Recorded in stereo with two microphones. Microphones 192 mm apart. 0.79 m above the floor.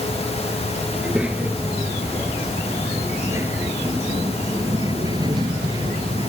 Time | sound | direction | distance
0.9 | a child speaking | 5° right (ahead or behind) | ?